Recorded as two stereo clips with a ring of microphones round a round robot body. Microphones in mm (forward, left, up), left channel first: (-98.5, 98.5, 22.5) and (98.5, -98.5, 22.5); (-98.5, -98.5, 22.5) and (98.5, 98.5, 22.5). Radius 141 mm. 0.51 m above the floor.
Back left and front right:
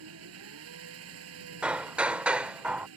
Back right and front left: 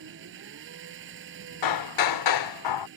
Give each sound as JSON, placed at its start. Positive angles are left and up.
{"t": 0.0, "sound": "an engine running", "azimuth_deg": -5}
{"t": 1.6, "sound": "hammering", "azimuth_deg": -130}